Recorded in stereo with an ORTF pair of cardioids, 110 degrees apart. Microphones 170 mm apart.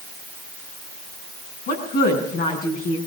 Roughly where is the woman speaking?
Ahead left.